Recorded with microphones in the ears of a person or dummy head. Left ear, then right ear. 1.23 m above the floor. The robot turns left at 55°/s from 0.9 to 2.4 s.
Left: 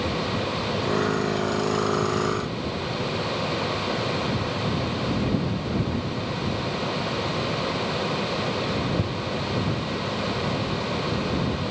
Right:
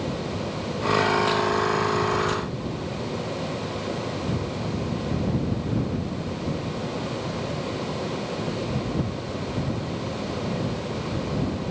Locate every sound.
Only background noise.